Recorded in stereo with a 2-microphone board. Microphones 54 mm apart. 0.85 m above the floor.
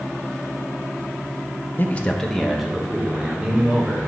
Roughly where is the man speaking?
Left.